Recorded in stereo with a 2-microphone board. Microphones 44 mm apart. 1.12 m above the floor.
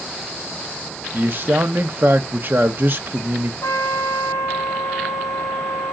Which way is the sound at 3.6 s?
80° left.